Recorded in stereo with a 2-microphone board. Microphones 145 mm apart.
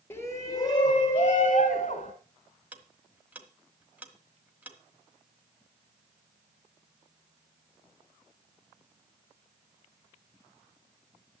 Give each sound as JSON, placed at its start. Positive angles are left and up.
{"t": 0.1, "sound": "a shout", "side_deg": 15, "distance_m": 1.0}
{"t": 2.7, "sound": "ticking", "side_deg": -10, "distance_m": 1.3}